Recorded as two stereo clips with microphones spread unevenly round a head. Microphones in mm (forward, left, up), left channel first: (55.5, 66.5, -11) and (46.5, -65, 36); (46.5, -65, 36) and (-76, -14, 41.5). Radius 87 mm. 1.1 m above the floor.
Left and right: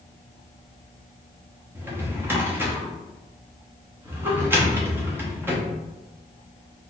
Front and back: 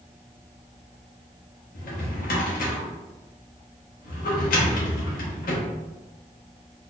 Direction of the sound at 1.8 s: 25° right.